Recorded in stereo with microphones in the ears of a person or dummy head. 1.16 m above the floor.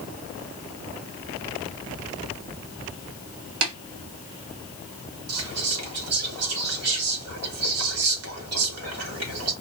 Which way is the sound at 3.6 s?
75° right (ahead or behind).